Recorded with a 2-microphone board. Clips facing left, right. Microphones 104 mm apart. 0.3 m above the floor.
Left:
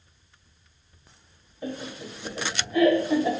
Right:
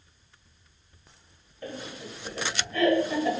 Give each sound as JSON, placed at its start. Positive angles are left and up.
{"t": 1.6, "sound": "laughter", "side_deg": 15, "distance_m": 1.2}